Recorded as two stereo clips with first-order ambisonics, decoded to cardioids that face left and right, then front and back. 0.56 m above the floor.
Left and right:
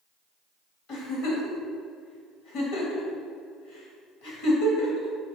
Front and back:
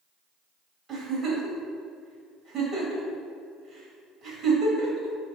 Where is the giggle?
110° left, 2.5 m.